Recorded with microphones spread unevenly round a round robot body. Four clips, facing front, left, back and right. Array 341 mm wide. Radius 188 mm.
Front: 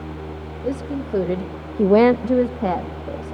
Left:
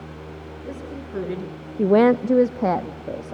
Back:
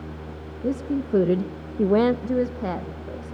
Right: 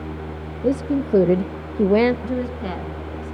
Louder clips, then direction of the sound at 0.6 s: Right 15 dB, back 1 dB; 110° right.